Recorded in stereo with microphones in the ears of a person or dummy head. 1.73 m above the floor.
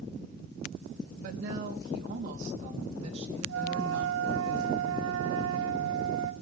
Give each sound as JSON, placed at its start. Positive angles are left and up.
{"t": 1.2, "sound": "a woman speaking", "side_deg": -55, "distance_m": 3.5}
{"t": 3.5, "sound": "a flute", "side_deg": -80, "distance_m": 1.4}